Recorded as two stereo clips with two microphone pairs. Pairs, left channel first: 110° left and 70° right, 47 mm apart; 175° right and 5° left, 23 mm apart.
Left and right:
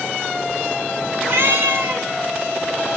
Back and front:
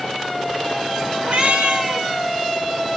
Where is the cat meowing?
35° right, 1.4 m.